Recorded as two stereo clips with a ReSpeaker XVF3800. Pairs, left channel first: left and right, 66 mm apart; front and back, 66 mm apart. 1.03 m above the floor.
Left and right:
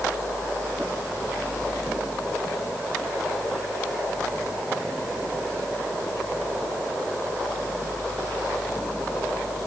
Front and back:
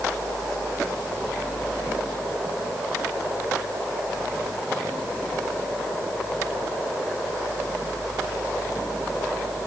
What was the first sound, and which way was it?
Only background noise.